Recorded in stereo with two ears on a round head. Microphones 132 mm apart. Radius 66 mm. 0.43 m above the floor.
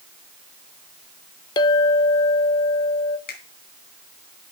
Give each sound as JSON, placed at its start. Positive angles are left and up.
{"t": 1.6, "sound": "a clink", "side_deg": 30, "distance_m": 0.6}
{"t": 3.3, "sound": "a finger snap", "side_deg": 70, "distance_m": 2.5}